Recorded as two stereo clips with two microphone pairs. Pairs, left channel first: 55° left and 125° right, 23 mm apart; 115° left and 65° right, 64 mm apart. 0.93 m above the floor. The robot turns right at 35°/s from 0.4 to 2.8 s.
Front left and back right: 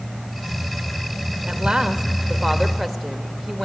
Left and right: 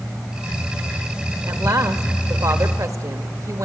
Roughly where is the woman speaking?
Right.